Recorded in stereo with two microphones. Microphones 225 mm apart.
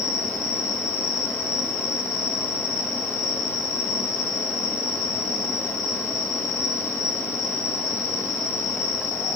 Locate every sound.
0.0 s an insect: 35° right (ahead or behind), 0.8 m